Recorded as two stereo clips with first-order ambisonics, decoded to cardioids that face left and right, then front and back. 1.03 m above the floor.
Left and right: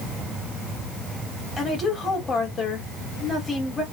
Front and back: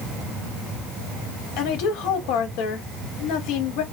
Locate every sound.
1.6 s a woman speaking: 15° left, 2.5 m